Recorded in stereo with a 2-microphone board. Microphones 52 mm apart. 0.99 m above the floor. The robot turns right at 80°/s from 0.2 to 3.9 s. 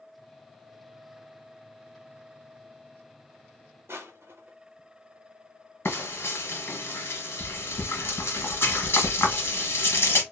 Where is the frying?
50° left (ahead or behind), 1.2 m.